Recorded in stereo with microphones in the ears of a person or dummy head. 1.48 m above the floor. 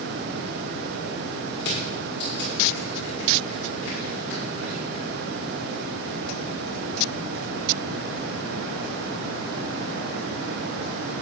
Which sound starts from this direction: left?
Crushing, at 1.6 s.